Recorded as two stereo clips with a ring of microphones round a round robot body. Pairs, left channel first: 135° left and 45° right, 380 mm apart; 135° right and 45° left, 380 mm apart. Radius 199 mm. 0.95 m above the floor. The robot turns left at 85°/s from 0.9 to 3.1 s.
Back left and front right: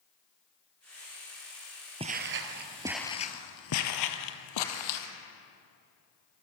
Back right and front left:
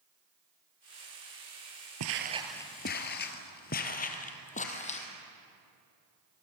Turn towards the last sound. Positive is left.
turn(degrees=155)